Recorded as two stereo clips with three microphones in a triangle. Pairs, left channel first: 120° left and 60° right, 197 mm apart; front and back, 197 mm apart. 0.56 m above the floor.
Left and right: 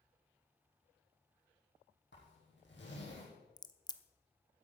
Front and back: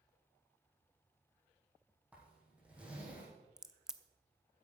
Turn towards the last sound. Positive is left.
turn(degrees=100)